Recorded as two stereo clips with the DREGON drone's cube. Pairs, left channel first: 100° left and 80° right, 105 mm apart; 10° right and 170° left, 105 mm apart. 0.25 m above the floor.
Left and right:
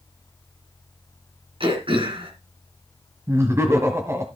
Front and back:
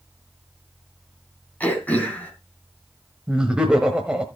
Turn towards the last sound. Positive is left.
turn(degrees=-115)